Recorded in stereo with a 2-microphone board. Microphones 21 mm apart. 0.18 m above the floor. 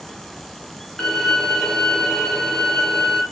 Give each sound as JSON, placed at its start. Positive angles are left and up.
{"t": 1.0, "sound": "a violin", "side_deg": 40, "distance_m": 3.0}